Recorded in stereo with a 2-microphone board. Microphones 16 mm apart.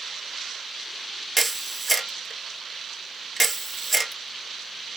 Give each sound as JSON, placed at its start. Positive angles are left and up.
{"t": 1.4, "sound": "a camera shutter", "side_deg": 10, "distance_m": 0.9}